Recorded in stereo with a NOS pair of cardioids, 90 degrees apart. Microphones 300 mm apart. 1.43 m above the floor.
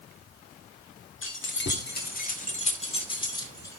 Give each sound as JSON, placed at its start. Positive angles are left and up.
{"t": 1.2, "sound": "keys jangling", "azimuth_deg": 45, "distance_m": 2.5}